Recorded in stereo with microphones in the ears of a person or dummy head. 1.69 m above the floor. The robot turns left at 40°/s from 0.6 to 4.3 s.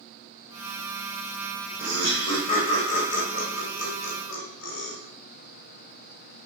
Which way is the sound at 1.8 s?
10° left (ahead or behind).